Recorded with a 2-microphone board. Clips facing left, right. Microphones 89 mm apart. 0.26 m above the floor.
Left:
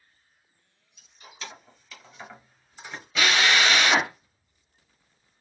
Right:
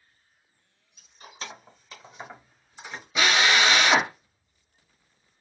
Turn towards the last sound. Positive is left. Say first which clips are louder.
# right 1 dB
turn(degrees=-15)  # may be behind; listen again after turning